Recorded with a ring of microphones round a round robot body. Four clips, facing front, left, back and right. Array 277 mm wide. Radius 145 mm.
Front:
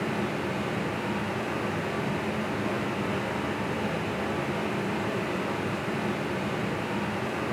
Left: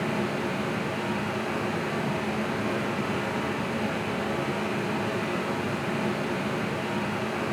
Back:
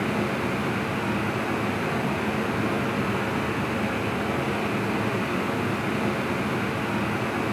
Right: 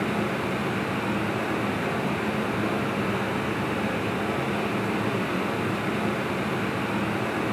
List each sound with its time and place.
0.0 s running water: 150° right, 1.4 m